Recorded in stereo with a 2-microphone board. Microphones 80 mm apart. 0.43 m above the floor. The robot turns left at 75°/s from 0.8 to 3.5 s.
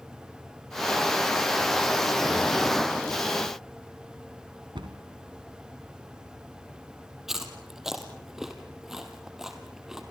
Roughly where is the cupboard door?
Right.